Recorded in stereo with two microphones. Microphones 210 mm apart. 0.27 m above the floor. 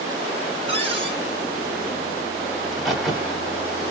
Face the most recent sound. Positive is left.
turn(degrees=0)  # may be behind; listen again after turning